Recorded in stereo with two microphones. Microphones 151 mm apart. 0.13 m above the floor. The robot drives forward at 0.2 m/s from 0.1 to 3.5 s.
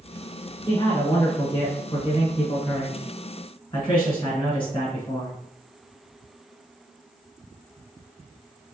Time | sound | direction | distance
0.7 | a man speaking | 30° left (ahead or behind) | 1.6 m